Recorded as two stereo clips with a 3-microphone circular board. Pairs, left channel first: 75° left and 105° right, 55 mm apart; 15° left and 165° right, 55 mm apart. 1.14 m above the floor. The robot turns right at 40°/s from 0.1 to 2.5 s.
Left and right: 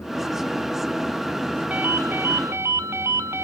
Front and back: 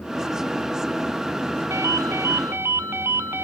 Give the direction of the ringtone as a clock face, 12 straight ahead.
5 o'clock.